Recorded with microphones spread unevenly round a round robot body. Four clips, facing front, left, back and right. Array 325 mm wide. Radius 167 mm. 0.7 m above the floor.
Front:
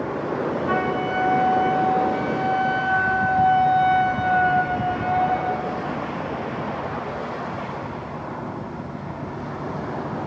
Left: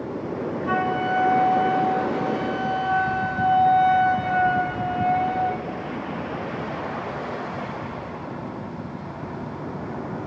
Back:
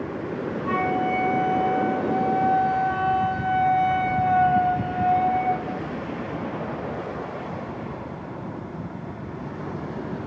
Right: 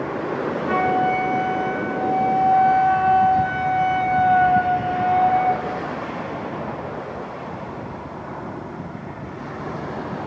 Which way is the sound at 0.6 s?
145° left.